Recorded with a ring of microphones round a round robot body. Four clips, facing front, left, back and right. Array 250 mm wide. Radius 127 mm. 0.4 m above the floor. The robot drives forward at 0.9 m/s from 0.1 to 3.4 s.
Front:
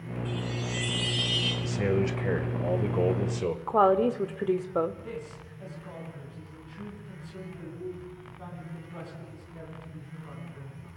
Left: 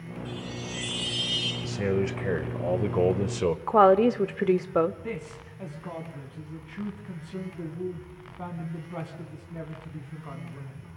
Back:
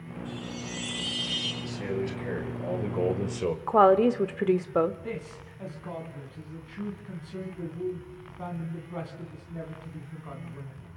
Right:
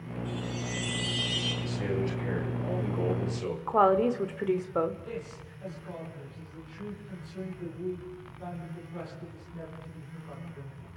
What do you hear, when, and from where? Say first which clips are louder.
0.2 s a chime: right 2 dB, front 3 dB; 25° left, 9 m; by 1.5 s 30° left, 8 m
1.6 s a man speaking: left 6 dB, front 5 dB; 40° left, 2 m; by 3.6 s 95° left, 1.6 m
3.7 s a woman speaking: left 4 dB, back 3 dB; 120° left, 1.0 m
5.0 s a man speaking: left 3 dB, back 2 dB; 115° left, 3 m